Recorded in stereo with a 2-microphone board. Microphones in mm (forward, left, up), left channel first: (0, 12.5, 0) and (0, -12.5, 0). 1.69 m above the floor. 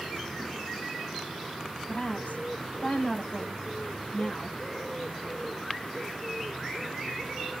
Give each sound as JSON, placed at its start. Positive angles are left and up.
{"t": 1.9, "sound": "a woman speaking", "side_deg": 70, "distance_m": 9.5}